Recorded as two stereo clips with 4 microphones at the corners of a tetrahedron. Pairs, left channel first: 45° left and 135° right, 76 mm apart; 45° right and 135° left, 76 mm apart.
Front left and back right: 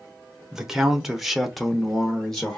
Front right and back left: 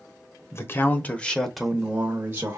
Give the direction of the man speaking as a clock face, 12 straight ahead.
2 o'clock.